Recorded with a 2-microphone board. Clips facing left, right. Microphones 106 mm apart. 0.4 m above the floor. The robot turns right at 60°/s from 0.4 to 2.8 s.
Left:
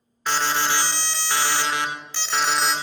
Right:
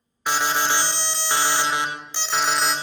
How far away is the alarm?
About 0.6 m.